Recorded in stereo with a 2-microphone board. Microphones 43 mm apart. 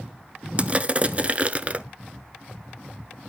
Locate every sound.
0.6 s crushing: 30° right (ahead or behind), 0.6 m